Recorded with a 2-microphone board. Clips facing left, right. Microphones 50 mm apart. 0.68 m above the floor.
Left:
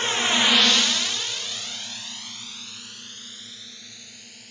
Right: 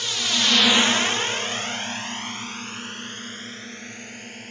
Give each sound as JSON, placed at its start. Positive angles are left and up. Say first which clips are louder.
{"t": 0.0, "sound": "a drone", "louder": "left 3 dB", "side_deg": 35}